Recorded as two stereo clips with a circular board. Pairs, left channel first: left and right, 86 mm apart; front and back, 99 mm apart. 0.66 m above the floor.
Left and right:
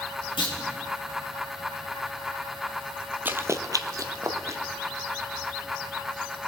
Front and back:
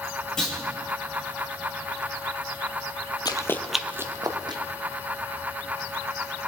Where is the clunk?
80° left, 3.5 m.